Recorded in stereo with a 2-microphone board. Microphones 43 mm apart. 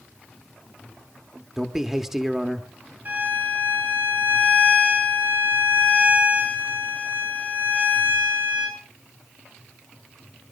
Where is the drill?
No drill in this recording.